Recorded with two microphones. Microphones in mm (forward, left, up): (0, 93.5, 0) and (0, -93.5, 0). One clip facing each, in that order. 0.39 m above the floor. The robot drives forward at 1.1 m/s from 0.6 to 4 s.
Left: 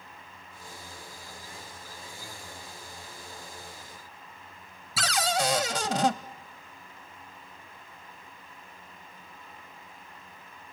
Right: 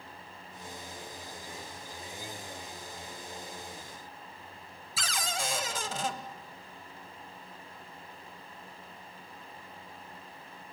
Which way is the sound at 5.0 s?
75° left (ahead or behind).